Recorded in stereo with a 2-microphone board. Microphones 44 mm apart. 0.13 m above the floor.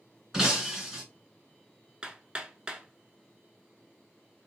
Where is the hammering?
20° right (ahead or behind), 0.6 m.